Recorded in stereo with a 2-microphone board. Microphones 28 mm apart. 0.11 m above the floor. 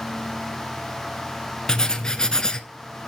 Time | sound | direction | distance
1.7 | writing | 20° left (ahead or behind) | 0.7 m